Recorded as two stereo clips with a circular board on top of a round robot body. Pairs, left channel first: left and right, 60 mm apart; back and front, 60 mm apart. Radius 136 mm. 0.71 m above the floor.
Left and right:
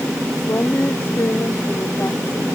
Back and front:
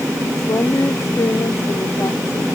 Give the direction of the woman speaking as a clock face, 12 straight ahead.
7 o'clock.